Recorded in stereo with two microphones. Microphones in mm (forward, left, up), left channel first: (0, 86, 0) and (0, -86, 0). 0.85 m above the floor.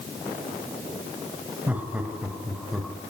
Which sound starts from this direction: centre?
Laughter, at 1.7 s.